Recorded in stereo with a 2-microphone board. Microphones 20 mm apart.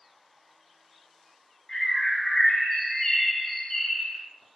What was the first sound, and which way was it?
A bird, 30° left (ahead or behind).